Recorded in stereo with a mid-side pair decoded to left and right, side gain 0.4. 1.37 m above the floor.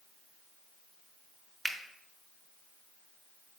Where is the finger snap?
10° right, 0.8 m.